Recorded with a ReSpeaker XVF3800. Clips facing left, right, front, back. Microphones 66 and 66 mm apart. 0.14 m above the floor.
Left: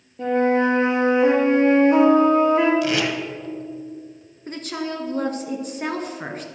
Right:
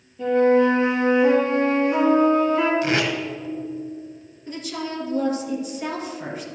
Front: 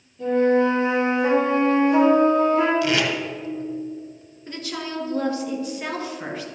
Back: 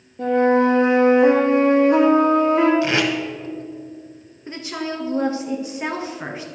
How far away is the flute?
About 4 m.